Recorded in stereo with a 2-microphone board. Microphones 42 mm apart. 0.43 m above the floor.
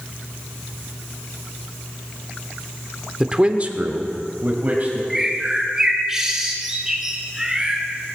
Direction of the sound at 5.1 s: 10° right (ahead or behind).